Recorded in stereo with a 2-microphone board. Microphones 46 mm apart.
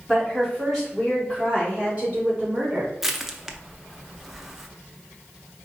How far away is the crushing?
About 0.5 m.